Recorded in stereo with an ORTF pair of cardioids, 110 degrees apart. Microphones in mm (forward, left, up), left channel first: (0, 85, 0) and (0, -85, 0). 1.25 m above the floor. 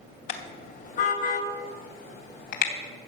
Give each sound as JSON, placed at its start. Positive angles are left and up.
{"t": 0.3, "sound": "a car horn", "azimuth_deg": 50, "distance_m": 2.5}